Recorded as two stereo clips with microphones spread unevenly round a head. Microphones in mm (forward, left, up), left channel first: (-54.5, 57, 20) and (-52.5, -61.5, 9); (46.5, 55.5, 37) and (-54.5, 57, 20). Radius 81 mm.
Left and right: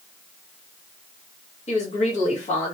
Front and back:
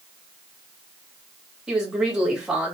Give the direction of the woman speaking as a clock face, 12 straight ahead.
9 o'clock.